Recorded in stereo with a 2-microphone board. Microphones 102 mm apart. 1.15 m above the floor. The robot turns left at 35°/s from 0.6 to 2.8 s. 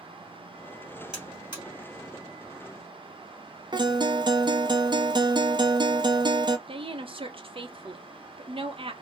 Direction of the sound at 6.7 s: 60° right (ahead or behind).